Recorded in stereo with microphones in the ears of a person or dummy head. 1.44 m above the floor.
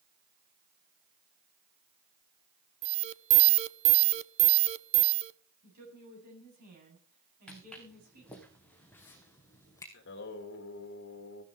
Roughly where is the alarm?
Right.